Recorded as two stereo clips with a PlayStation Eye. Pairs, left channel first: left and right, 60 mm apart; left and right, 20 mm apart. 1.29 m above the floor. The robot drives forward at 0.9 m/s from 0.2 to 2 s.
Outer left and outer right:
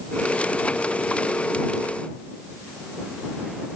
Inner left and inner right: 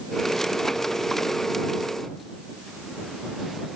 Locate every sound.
Only background noise.